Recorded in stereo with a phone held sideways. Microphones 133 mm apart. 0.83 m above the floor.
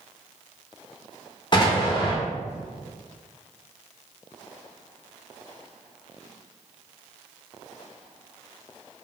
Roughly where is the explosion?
Left.